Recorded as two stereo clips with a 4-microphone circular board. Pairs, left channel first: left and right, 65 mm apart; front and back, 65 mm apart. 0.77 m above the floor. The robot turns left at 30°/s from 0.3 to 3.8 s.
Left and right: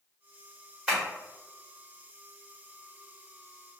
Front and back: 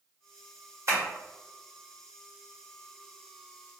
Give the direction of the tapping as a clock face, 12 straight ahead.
5 o'clock.